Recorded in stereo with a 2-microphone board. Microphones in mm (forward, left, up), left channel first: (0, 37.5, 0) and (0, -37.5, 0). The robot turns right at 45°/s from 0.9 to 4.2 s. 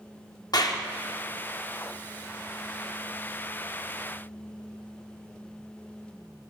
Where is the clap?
60° left (ahead or behind), 1.0 m.